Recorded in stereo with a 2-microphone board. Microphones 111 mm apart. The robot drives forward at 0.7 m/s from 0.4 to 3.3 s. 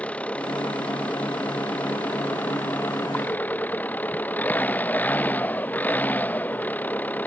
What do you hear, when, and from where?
0.0 s an engine running: 10° left (ahead or behind); by 7.3 s 15° left (ahead or behind)